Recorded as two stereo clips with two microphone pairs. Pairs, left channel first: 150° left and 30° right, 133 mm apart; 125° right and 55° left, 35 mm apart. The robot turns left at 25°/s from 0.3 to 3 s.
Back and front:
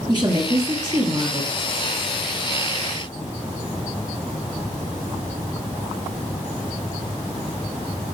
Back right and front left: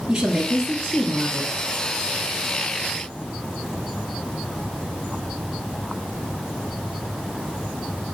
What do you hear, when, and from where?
0.1 s a woman speaking: 10° right, 1.9 m; by 1.5 s 45° right, 1.9 m